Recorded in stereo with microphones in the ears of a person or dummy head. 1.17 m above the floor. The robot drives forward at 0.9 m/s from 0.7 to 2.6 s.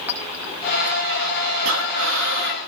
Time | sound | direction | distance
0.1 | a clink | 15° right (ahead or behind) | 4 m
1.6 | breathing | 80° right | 2 m